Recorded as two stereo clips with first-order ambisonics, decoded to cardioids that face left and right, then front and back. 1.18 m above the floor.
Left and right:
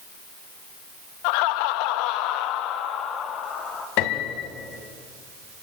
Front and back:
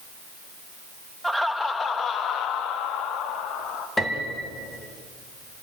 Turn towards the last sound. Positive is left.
turn(degrees=80)